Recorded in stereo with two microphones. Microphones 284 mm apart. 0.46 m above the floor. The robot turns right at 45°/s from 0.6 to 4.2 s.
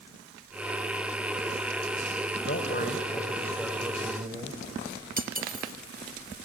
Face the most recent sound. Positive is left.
turn(degrees=-30)  # may be behind; listen again after turning